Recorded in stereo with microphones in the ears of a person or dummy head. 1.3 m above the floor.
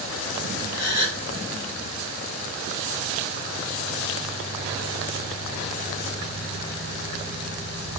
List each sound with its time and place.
0.7 s a gasp: 75° left (ahead or behind), 3 m